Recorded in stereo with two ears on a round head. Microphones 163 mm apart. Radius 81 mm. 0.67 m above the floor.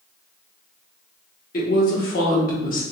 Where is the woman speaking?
50° left (ahead or behind), 1.3 m.